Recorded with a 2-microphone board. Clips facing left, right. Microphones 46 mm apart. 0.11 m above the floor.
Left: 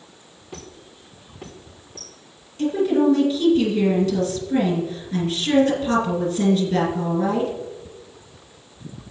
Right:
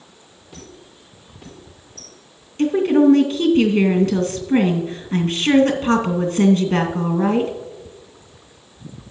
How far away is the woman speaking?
About 2.5 m.